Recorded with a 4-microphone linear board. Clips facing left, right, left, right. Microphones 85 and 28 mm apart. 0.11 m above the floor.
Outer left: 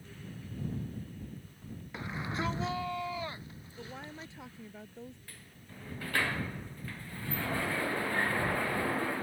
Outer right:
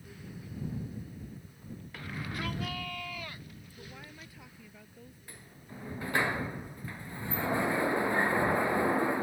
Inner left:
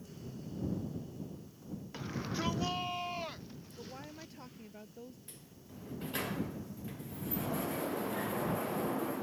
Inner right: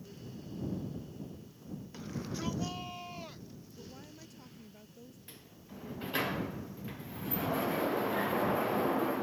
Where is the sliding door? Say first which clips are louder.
Outer right 3 dB, inner right 2 dB; 20° right (ahead or behind).